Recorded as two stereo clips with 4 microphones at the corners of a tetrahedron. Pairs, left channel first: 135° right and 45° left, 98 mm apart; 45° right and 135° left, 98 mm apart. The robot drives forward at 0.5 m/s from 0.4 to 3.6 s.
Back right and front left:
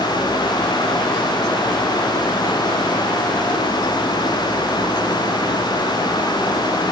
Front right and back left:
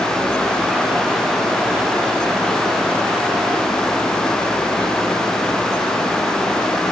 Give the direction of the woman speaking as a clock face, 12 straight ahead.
I don't hear a woman speaking.